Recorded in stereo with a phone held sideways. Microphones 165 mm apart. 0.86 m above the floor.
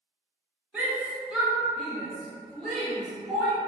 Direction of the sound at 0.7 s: 10° right (ahead or behind).